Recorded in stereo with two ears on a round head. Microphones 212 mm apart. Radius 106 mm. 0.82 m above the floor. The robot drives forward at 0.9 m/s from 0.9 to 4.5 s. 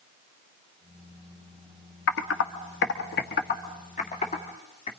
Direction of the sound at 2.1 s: 55° left (ahead or behind).